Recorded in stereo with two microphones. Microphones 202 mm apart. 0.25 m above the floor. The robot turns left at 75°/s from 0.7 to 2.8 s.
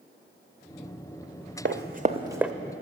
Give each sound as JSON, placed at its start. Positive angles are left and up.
{"t": 1.6, "sound": "running footsteps", "side_deg": -65, "distance_m": 0.9}